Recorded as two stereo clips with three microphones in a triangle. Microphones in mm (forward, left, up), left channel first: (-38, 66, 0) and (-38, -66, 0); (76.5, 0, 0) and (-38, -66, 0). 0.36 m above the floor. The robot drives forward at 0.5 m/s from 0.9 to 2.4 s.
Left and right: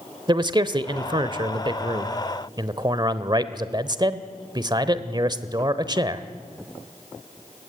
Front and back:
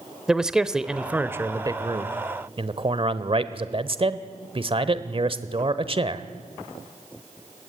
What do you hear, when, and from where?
0.3 s a man speaking: 70° right, 1.0 m; by 6.3 s 130° right, 1.1 m